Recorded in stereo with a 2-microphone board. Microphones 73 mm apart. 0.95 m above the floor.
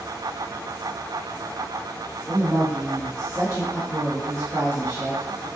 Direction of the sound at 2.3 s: 45° right (ahead or behind).